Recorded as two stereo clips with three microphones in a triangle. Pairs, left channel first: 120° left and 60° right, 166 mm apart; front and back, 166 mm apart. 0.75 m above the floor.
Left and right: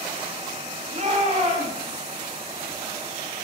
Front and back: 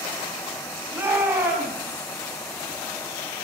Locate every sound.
0.9 s a shout: 105° right, 4 m